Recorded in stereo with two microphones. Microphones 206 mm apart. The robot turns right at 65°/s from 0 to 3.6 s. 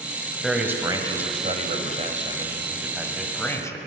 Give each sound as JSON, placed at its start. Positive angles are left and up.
{"t": 0.4, "sound": "a man speaking", "azimuth_deg": 180, "distance_m": 1.4}